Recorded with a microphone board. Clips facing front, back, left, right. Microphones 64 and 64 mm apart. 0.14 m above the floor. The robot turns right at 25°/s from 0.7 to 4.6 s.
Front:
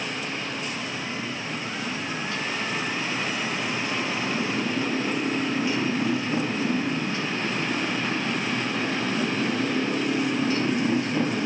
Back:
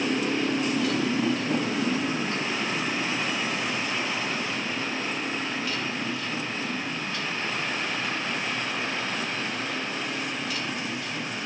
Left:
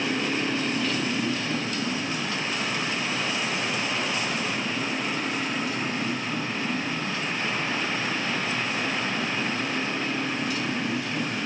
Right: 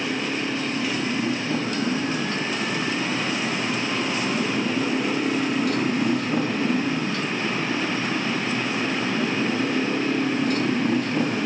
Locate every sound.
0.0 s a motorcycle: 175° right; by 11.5 s 50° right